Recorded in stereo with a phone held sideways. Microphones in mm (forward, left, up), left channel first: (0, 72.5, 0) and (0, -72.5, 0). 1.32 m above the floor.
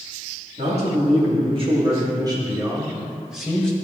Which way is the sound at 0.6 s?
50° right (ahead or behind).